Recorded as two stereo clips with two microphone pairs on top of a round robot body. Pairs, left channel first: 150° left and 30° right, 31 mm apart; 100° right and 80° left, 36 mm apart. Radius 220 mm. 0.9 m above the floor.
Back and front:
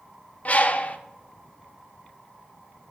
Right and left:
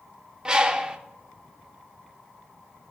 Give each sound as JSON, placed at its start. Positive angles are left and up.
{"t": 0.5, "sound": "a bird", "azimuth_deg": 135, "distance_m": 1.0}